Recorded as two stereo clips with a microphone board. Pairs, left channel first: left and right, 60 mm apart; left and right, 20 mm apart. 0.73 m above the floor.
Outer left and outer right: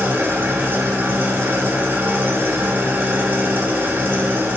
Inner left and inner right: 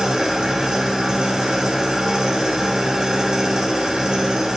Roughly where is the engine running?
Right.